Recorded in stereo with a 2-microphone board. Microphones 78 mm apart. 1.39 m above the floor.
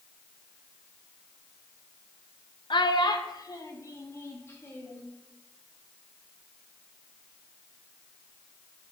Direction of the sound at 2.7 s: 70° left (ahead or behind).